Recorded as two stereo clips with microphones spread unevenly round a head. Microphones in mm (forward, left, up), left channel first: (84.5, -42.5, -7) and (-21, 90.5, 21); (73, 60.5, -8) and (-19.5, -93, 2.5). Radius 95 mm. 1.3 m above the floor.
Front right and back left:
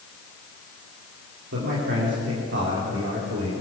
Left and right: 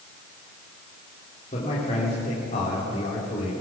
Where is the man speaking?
120° left, 4 m.